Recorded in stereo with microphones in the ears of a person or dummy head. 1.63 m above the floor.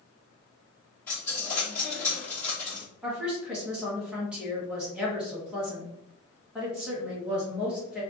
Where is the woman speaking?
5° right (ahead or behind), 1.2 m.